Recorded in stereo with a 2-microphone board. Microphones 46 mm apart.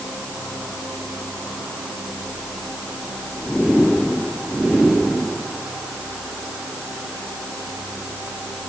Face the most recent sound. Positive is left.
No sound to turn to.